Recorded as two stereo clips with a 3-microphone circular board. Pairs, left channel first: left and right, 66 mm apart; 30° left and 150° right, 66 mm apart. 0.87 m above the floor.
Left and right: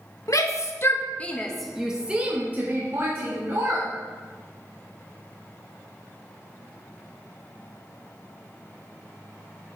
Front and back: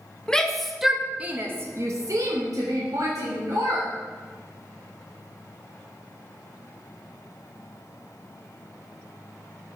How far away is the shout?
About 1.1 m.